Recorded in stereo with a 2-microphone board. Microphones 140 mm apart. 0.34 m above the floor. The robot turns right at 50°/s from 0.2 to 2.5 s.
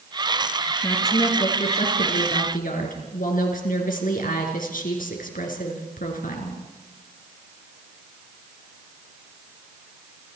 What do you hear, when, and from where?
0.8 s a woman speaking: 15° left, 4.5 m; by 6.6 s 95° left, 4.5 m